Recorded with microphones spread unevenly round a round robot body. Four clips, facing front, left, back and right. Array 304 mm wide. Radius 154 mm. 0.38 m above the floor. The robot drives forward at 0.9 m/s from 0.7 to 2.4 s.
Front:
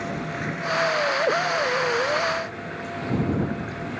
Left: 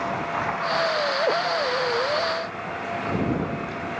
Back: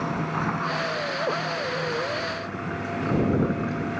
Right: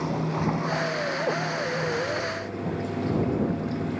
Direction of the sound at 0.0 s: 115° right.